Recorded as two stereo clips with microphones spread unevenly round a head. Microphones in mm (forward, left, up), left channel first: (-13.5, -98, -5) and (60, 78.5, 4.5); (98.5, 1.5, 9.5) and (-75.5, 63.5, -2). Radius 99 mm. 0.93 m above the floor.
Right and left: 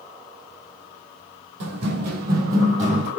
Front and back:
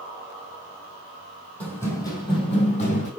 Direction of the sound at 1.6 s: 60° left.